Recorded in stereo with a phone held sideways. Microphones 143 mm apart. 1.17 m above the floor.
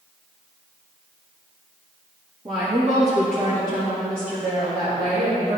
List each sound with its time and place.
2.5 s a woman speaking: 35° right (ahead or behind), 1.3 m; by 5.6 s 85° right, 2.5 m